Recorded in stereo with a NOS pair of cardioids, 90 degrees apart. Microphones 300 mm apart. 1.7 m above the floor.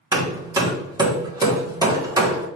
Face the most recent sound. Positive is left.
turn(degrees=-15)